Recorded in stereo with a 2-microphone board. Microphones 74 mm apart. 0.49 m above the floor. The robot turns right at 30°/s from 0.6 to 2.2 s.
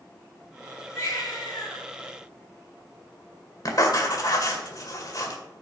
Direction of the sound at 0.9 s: 35° left (ahead or behind).